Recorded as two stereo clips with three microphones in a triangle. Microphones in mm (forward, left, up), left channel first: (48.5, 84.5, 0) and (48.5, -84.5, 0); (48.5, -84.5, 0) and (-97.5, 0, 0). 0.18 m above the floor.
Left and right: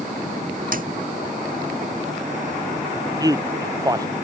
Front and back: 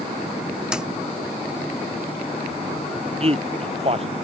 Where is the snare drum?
125° right.